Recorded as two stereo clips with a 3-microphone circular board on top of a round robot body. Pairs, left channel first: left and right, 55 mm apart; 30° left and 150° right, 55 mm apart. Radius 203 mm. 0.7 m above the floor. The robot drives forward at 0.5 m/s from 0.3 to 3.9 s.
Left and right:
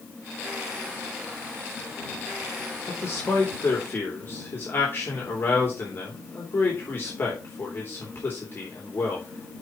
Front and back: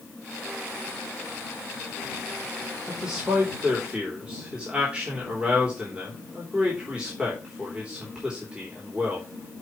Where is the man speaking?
130° left, 3 m; by 9.3 s 140° left, 3.5 m.